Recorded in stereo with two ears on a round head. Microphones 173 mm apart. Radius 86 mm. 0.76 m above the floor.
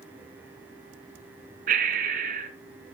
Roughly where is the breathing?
Right.